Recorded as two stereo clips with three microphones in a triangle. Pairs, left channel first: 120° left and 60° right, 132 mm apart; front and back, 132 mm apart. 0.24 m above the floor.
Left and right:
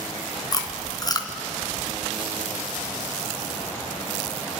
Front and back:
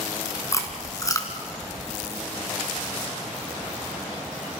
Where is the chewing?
65° left, 2.5 m.